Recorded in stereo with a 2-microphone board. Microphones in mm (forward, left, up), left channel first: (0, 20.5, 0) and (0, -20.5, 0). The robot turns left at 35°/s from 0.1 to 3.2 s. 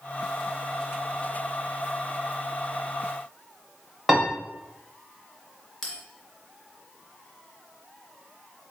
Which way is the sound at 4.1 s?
5° right (ahead or behind).